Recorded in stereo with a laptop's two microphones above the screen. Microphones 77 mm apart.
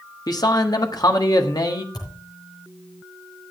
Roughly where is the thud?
Left.